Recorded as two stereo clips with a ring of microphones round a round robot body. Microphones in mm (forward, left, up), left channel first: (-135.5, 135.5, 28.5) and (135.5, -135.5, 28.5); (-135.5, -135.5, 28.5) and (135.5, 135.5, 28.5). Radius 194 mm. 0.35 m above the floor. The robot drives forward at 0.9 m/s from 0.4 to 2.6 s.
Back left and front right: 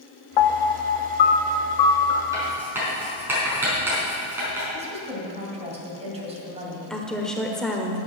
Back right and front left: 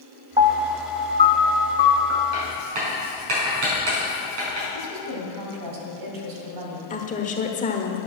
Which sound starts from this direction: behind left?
A piano, at 0.4 s.